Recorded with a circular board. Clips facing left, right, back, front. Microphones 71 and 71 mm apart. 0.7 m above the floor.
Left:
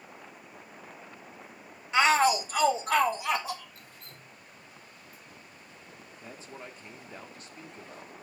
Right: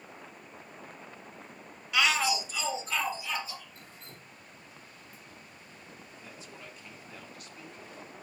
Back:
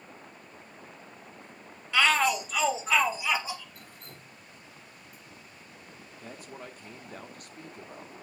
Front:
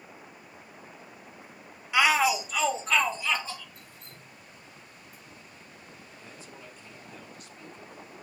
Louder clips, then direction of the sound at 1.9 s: Left 5 dB, front 1 dB; 55° left.